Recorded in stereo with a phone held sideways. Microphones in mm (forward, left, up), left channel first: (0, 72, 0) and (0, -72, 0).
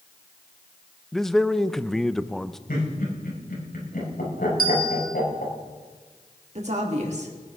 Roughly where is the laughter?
Left.